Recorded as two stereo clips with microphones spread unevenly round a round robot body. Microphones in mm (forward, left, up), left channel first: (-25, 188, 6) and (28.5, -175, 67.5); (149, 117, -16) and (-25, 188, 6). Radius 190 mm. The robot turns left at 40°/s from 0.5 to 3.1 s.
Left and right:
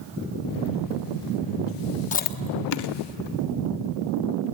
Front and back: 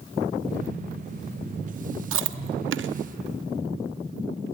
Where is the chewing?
170° left, 0.9 m; by 2.9 s 140° left, 0.9 m.